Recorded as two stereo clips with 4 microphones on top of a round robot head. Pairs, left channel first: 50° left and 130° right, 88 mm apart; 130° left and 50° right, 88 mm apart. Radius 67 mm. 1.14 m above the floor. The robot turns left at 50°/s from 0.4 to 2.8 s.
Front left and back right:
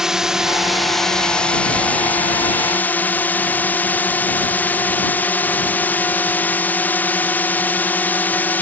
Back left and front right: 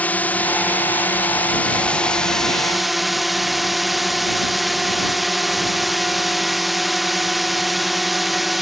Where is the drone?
160° left; by 8.6 s 40° left.